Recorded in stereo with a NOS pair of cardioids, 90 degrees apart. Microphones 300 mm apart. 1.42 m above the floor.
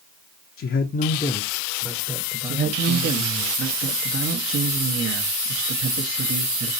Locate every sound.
0.6 s a man speaking: 45° left, 0.7 m; by 3.5 s 30° right, 1.6 m
2.5 s a man speaking: 45° right, 1.0 m